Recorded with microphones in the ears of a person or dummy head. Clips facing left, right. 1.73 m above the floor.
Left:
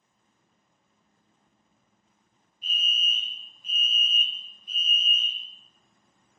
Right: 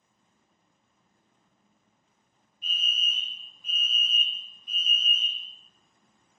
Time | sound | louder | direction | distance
2.6 | a fire alarm | left 2 dB | 25° left (ahead or behind) | 0.7 m